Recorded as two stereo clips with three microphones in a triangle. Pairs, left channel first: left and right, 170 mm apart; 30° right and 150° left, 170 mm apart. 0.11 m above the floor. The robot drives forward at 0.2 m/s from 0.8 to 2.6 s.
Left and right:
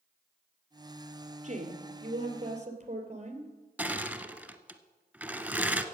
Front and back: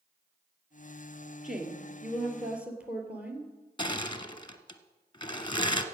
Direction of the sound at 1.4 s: 125° right.